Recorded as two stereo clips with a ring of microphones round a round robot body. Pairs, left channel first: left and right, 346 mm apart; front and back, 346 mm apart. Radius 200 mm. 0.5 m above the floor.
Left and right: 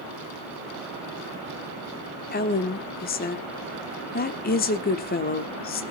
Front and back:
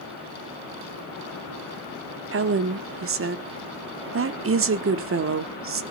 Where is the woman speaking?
145° left, 1.2 m.